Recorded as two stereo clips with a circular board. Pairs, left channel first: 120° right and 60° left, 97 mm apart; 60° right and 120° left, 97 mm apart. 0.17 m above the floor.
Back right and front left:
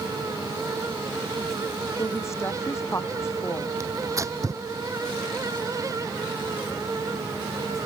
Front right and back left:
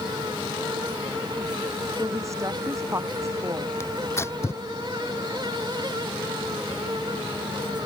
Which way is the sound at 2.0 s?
Straight behind.